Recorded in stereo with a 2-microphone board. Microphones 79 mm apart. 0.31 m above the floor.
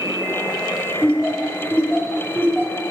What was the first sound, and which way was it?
Laughter, 25° left (ahead or behind).